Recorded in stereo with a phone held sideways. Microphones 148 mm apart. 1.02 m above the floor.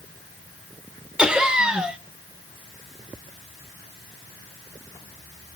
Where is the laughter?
5° right (ahead or behind), 1.0 m.